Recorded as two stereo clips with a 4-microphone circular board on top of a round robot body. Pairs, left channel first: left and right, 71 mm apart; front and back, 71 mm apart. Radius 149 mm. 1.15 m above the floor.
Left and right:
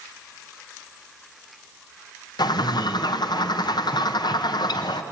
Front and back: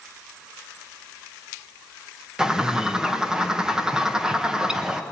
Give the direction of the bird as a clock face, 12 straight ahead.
9 o'clock.